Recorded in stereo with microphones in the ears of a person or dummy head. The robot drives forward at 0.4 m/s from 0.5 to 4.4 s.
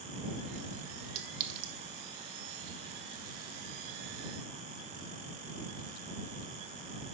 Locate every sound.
1.1 s a clink: 45° right (ahead or behind), 0.8 m; by 1.7 s 60° right (ahead or behind), 0.7 m